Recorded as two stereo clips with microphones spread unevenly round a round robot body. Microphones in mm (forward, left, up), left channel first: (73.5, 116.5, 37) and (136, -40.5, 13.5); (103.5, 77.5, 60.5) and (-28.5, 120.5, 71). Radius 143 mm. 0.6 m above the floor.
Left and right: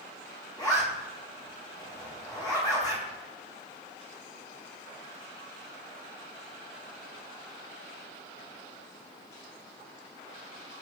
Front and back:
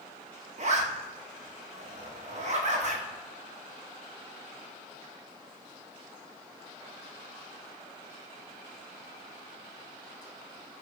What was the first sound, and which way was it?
A zipper, 175° right.